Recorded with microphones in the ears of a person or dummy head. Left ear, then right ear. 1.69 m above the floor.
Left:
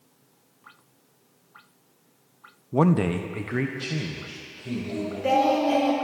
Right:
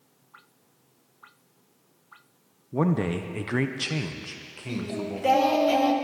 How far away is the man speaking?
About 0.5 m.